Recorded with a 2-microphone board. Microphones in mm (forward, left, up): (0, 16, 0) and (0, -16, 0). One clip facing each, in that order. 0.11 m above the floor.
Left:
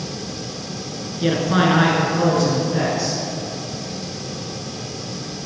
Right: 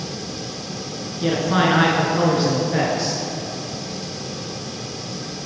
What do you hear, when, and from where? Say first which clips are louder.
1.2 s a man speaking: left 1 dB; 15° left (ahead or behind), 1.1 m; by 3.2 s 50° right (ahead or behind), 1.5 m